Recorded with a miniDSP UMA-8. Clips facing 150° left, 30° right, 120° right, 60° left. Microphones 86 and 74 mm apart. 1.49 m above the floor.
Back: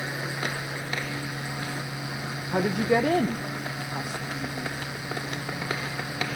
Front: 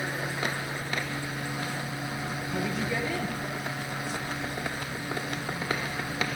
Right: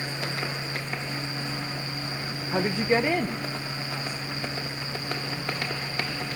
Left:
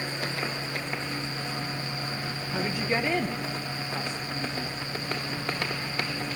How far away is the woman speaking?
About 1.1 m.